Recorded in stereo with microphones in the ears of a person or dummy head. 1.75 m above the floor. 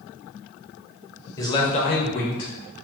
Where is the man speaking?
15° left (ahead or behind), 0.7 m; by 2.8 s 60° left (ahead or behind), 1.5 m.